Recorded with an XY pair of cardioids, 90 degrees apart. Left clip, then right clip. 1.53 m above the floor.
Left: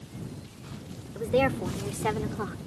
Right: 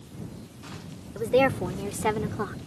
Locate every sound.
1.1 s a woman speaking: 30° right; by 2.6 s 20° right